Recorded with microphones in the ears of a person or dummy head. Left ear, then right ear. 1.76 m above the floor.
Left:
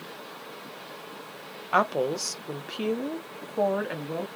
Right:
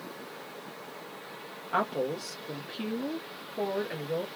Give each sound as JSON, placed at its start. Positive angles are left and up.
{"t": 1.7, "sound": "a woman speaking", "side_deg": 85, "distance_m": 1.3}